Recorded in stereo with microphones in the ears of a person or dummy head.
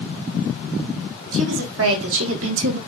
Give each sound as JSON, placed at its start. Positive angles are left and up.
{"t": 1.3, "sound": "a woman speaking", "side_deg": -75, "distance_m": 3.5}